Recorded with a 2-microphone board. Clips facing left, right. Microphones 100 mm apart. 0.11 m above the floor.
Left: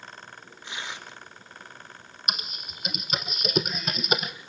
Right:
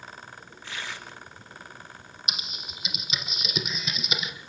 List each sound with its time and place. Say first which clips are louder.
0.6 s tearing paper: even; 20° left (ahead or behind), 1.5 m
2.3 s typing on a keyboard: left 5 dB; 50° left (ahead or behind), 1.3 m